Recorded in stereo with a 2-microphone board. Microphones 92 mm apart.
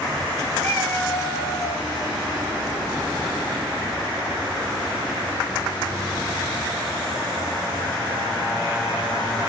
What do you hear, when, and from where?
0.6 s a cat meowing: 30° left (ahead or behind), 0.9 m; by 1.8 s 40° left (ahead or behind), 0.9 m